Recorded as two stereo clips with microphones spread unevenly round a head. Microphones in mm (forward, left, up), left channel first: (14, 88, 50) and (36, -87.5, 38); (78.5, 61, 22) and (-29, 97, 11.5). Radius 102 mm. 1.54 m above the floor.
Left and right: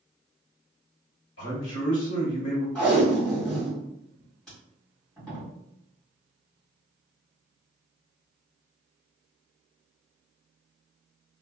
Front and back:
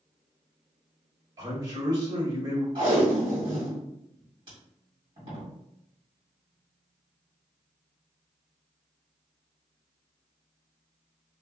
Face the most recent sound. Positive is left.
turn(degrees=175)